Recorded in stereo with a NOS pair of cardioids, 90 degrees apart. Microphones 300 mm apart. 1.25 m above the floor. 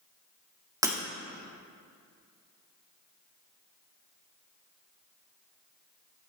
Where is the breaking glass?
10° right, 1.5 m.